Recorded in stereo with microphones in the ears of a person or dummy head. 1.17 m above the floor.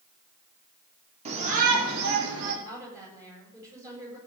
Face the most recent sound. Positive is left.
turn(degrees=-20)  # may be behind; listen again after turning